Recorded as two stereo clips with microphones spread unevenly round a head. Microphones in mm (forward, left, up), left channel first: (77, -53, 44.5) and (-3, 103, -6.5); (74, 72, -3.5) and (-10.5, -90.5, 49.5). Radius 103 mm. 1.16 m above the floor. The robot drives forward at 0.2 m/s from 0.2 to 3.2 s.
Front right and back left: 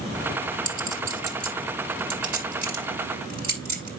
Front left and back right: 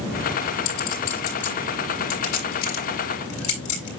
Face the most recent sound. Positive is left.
turn(degrees=80)